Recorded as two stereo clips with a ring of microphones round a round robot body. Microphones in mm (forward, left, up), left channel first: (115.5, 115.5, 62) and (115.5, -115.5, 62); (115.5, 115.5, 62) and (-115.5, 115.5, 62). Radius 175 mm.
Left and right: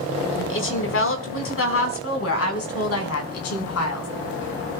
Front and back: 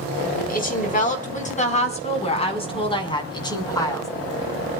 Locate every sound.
0.4 s a woman speaking: 55° left, 5 m; by 4.1 s 75° left, 5 m